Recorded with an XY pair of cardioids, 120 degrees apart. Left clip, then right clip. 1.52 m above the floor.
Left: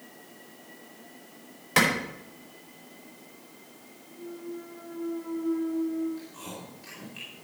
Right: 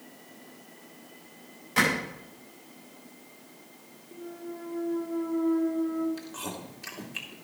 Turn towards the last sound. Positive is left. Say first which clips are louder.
# right 3 dB
turn(degrees=-65)